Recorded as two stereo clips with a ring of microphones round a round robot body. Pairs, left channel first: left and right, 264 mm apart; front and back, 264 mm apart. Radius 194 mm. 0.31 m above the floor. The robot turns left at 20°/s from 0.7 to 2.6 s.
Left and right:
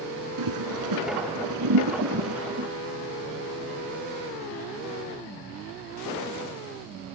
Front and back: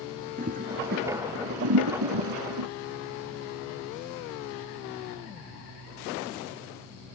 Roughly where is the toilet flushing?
Right.